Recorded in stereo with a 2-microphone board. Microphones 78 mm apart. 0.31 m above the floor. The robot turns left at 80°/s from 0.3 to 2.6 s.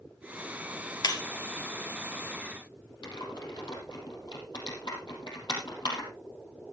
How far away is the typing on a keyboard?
About 4 m.